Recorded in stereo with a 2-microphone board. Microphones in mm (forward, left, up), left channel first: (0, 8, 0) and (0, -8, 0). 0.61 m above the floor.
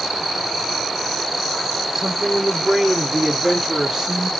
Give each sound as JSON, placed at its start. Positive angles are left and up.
{"t": 1.9, "sound": "a woman speaking", "side_deg": -45, "distance_m": 1.3}